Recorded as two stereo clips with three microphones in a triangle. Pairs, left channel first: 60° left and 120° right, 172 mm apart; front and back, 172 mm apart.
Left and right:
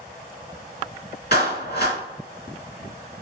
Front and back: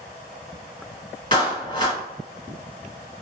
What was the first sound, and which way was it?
A clap, 60° left.